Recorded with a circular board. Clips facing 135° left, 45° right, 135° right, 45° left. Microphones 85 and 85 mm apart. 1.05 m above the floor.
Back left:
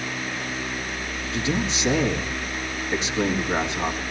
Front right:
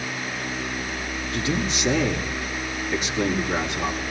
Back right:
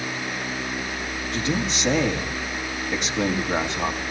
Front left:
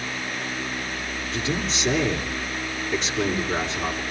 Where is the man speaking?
160° right, 2.5 m.